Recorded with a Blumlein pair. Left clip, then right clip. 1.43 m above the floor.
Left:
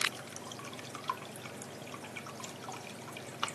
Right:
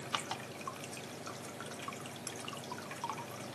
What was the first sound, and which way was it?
Only background noise.